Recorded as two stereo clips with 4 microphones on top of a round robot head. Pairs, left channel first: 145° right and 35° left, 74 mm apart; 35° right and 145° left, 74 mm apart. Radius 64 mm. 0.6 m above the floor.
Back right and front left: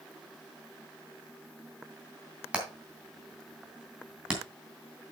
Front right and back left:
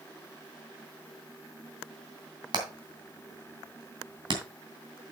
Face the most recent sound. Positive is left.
turn(degrees=115)